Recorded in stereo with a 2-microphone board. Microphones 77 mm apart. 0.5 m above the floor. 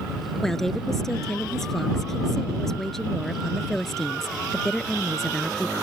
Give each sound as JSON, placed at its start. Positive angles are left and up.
{"t": 0.4, "sound": "a woman speaking", "side_deg": 5}